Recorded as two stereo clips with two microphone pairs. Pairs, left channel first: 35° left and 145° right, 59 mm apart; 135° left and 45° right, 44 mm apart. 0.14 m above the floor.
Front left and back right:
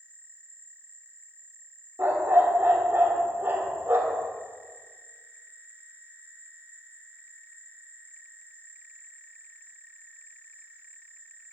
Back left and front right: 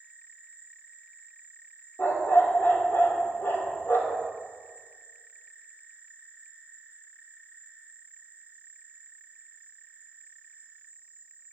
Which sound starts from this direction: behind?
A dog barking, at 2.0 s.